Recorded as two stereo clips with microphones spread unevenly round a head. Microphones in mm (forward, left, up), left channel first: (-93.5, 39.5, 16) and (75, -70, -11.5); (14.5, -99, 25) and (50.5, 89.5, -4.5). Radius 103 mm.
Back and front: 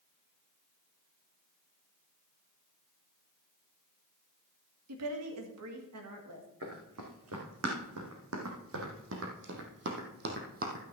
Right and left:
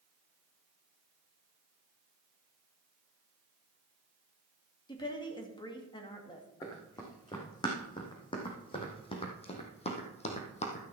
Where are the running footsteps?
35° right, 4 m; by 10.9 s 80° right, 1.9 m.